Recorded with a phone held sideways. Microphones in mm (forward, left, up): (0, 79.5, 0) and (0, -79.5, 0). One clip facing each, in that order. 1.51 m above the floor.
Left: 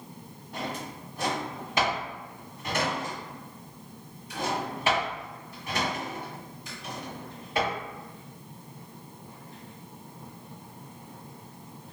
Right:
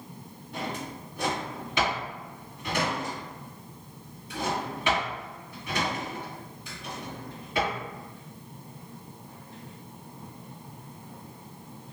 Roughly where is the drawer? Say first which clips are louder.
Right 1 dB; left.